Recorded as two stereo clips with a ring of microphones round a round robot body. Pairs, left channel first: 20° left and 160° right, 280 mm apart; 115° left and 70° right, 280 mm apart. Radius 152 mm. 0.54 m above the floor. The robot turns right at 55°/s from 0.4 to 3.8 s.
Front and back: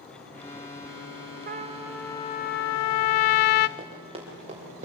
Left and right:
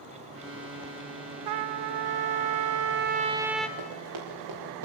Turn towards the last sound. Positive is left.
turn(degrees=-90)